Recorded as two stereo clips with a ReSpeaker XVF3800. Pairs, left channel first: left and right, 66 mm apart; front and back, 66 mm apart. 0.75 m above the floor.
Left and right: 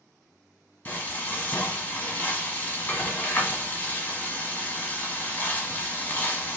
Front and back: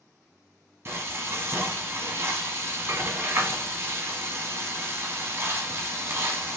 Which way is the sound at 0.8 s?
145° left.